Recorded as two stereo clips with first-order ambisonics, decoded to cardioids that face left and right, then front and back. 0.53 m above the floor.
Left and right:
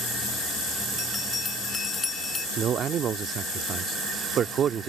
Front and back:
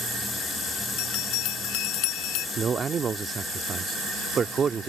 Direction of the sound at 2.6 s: 130° right.